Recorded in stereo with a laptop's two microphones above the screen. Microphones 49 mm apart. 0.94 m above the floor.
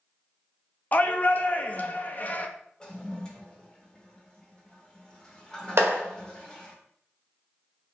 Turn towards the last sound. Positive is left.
turn(degrees=-60)  # may be behind; listen again after turning